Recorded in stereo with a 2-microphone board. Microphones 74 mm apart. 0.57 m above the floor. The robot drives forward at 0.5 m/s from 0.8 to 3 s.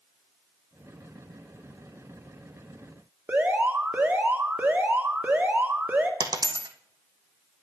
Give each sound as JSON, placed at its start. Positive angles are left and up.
{"t": 3.3, "sound": "an alarm", "side_deg": -20, "distance_m": 1.3}
{"t": 6.2, "sound": "a dropped coin", "side_deg": -60, "distance_m": 1.0}